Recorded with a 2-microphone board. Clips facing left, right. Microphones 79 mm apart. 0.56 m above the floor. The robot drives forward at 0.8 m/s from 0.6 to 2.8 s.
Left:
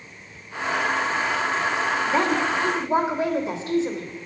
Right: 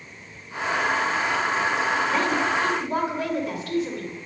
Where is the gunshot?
I don't hear a gunshot.